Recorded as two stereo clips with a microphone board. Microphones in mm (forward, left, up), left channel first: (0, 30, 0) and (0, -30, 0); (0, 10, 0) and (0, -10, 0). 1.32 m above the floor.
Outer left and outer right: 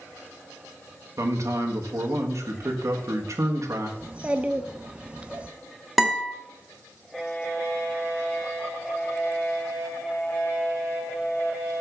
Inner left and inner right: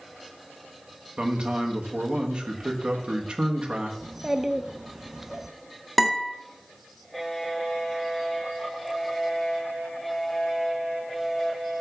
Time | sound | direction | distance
1.2 | a man speaking | 55° right (ahead or behind) | 1.4 m
4.0 | a child speaking | 20° right (ahead or behind) | 0.7 m
6.0 | a guitar | centre (ahead or behind) | 1.4 m